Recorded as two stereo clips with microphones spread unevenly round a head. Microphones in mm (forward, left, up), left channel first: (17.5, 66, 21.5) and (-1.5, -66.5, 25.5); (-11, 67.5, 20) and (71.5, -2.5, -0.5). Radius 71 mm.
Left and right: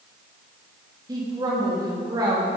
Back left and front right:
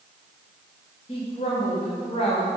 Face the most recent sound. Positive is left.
turn(degrees=-160)